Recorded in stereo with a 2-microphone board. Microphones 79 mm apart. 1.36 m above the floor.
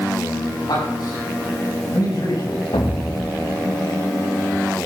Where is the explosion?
80° left, 2.5 m.